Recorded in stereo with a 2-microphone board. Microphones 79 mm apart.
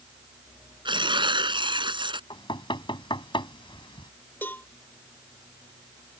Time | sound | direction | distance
0.8 | tearing paper | 75° right (ahead or behind) | ?
2.3 | knocking | 85° left | ?
4.4 | a cowbell | 25° left (ahead or behind) | ?